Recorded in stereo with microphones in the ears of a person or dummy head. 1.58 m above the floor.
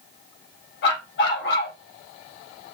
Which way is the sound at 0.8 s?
70° left (ahead or behind).